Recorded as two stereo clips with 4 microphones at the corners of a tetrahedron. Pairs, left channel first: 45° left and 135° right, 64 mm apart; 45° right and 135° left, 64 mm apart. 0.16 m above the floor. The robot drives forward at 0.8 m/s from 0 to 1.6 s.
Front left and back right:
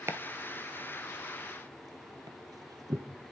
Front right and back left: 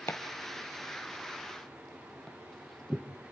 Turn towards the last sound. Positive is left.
turn(degrees=-130)